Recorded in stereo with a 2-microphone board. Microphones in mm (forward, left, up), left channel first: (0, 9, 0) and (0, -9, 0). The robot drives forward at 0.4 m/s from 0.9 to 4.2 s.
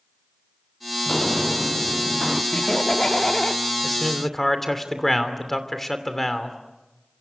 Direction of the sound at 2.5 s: 40° left (ahead or behind).